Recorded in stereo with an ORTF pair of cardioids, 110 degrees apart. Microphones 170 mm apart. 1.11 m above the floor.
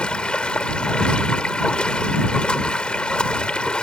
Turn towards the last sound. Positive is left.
turn(degrees=5)